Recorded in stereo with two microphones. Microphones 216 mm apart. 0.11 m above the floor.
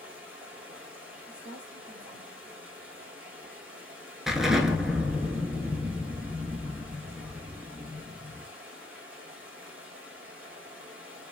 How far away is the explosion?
About 0.6 m.